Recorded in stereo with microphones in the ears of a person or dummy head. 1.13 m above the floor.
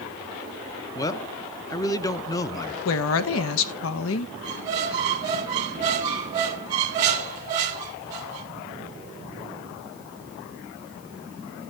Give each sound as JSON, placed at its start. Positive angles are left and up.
{"t": 0.9, "sound": "a man speaking", "side_deg": 20, "distance_m": 0.7}
{"t": 2.9, "sound": "a woman speaking", "side_deg": 75, "distance_m": 0.9}
{"t": 4.4, "sound": "a squeak", "side_deg": -20, "distance_m": 1.0}